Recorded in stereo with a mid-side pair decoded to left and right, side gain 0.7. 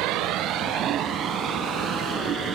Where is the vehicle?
65° right; by 2.6 s 40° right.